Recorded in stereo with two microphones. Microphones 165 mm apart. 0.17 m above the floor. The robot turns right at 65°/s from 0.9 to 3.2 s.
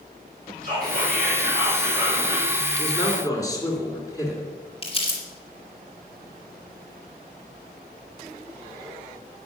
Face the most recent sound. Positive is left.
turn(degrees=35)  # may be behind; listen again after turning